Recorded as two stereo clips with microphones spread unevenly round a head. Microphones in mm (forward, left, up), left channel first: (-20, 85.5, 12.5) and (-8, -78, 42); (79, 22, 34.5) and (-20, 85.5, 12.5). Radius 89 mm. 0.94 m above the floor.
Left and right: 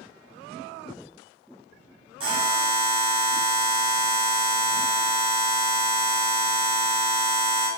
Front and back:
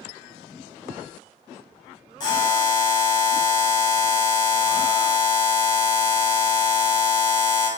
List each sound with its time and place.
2.2 s a buzzer: 55° right, 0.9 m